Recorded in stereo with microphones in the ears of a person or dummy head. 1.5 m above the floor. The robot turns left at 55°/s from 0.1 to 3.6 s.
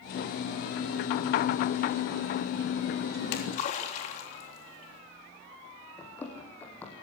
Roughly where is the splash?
Left.